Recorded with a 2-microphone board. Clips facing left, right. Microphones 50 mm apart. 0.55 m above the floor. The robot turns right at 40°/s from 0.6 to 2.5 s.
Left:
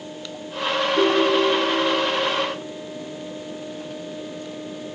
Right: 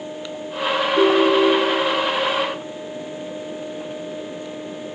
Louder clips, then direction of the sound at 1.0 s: Right 4 dB; 160° right.